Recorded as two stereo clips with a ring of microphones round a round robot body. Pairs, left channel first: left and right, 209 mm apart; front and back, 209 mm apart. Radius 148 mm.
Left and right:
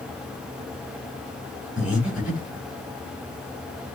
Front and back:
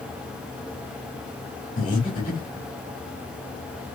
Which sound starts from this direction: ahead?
Breathing, at 1.8 s.